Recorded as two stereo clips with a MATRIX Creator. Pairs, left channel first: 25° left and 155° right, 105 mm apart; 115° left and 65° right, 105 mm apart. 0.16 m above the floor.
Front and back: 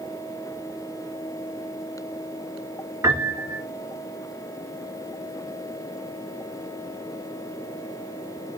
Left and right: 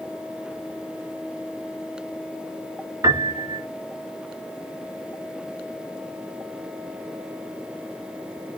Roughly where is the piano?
Right.